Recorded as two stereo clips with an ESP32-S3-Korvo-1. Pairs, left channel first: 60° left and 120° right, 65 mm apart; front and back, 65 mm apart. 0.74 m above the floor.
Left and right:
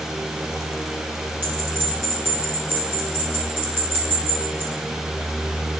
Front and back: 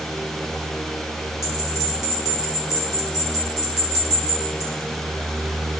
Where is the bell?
170° right, 4 m.